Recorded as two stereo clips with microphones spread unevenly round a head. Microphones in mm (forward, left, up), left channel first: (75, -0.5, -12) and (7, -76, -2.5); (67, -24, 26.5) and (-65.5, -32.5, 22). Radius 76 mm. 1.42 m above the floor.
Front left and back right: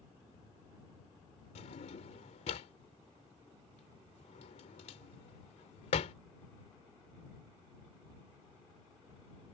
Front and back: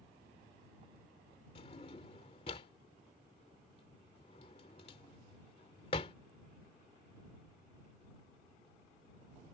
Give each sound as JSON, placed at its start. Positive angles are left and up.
{"t": 1.6, "sound": "a drawer", "azimuth_deg": 55}